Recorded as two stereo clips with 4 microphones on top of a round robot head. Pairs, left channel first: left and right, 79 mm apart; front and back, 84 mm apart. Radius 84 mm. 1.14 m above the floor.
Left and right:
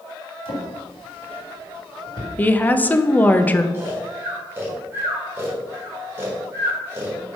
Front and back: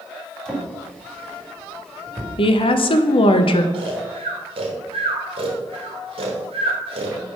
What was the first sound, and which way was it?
A drawer, 85° left.